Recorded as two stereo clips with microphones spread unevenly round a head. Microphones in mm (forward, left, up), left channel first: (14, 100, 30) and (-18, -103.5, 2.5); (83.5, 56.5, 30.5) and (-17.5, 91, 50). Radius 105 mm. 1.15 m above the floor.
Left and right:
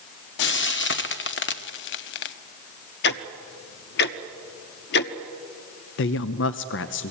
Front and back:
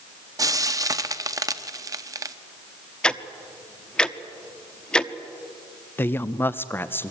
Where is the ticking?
70° left, 0.9 m.